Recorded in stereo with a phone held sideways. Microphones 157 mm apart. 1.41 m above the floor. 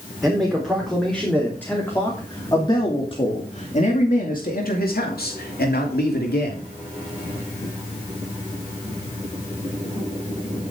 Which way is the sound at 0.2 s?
Centre (ahead or behind).